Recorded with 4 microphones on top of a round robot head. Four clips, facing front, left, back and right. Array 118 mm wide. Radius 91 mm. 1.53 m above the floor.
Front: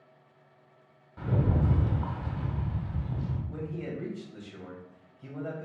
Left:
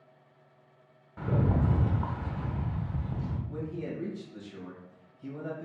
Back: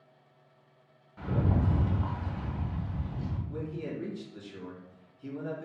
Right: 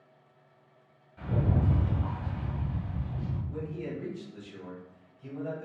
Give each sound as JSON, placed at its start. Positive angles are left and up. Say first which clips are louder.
{"t": 1.2, "sound": "a rattle", "louder": "left 2 dB, front 1 dB", "azimuth_deg": 70, "distance_m": 0.8}
{"t": 3.5, "sound": "a man speaking", "louder": "even, even", "azimuth_deg": 30, "distance_m": 1.7}